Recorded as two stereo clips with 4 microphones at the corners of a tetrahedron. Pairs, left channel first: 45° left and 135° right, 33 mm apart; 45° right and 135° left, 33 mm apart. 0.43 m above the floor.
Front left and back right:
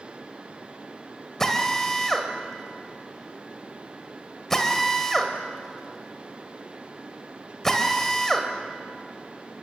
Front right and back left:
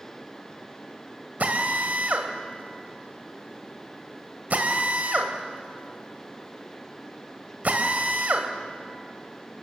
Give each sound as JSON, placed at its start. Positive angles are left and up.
{"t": 1.4, "sound": "a drill", "azimuth_deg": 120, "distance_m": 2.5}